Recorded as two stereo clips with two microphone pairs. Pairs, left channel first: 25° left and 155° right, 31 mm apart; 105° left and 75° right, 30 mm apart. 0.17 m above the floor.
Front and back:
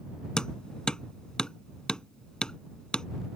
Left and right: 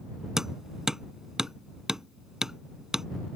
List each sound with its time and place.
0.4 s hammering: 15° right